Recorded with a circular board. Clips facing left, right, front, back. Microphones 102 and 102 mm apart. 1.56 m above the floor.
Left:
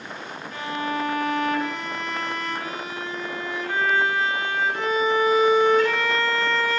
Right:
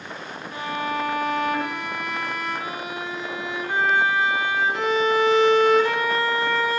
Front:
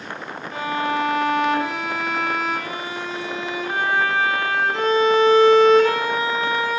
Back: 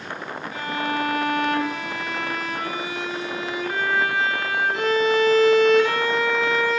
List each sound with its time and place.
0.5 s a violin: 20° right, 3 m